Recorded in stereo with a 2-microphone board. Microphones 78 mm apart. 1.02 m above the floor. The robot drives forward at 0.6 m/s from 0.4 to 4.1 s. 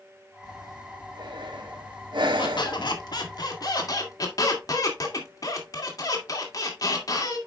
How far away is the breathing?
About 1.8 m.